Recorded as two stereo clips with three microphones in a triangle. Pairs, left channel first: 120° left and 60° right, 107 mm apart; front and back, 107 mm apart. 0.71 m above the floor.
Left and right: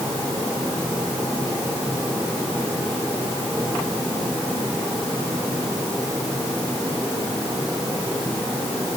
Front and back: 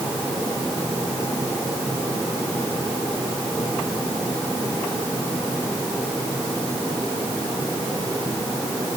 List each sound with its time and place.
Only background noise.